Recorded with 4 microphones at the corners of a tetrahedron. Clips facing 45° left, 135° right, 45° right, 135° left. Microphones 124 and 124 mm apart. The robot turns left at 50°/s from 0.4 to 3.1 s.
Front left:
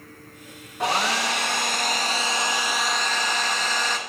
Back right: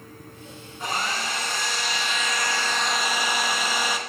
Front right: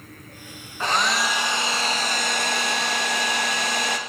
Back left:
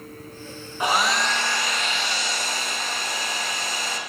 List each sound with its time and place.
0.8 s a hair dryer: 60° left, 0.7 m; by 4.0 s 55° right, 0.7 m